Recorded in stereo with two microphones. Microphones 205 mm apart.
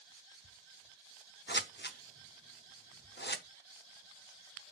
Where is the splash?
I don't hear a splash.